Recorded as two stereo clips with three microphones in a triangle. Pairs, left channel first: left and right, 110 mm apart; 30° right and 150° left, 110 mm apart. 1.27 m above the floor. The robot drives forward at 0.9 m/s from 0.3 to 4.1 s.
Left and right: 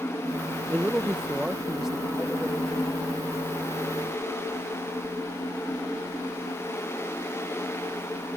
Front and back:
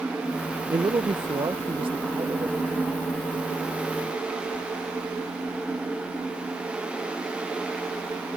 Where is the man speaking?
160° right; by 3.0 s 175° right.